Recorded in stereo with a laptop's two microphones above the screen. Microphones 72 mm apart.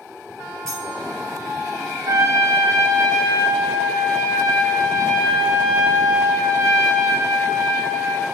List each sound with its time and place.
0.7 s cutlery clinking: 10° left (ahead or behind), 2 m
2.1 s a trumpet: 55° right (ahead or behind), 0.8 m